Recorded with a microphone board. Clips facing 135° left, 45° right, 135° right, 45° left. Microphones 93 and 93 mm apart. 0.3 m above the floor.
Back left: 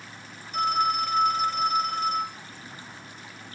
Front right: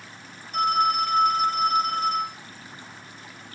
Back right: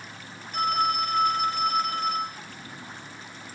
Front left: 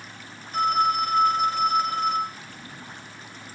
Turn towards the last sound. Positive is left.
turn(degrees=-15)